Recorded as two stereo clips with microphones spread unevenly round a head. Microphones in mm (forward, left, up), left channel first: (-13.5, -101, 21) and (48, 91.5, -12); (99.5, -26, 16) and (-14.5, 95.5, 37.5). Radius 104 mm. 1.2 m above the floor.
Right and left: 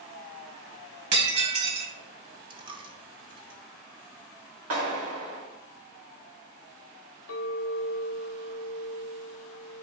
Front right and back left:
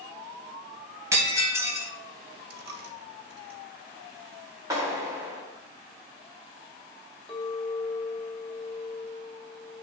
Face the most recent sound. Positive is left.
turn(degrees=-135)